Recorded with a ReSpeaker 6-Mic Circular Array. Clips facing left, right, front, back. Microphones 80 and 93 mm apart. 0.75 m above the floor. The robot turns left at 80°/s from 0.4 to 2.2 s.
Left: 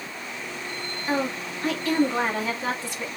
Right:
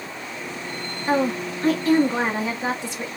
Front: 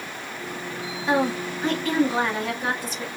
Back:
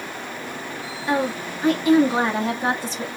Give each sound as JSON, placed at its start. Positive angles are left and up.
{"t": 1.1, "sound": "a woman speaking", "azimuth_deg": -55, "distance_m": 1.1}